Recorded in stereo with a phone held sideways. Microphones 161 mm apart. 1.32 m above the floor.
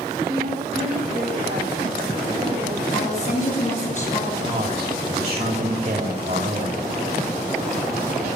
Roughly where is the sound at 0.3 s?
Right.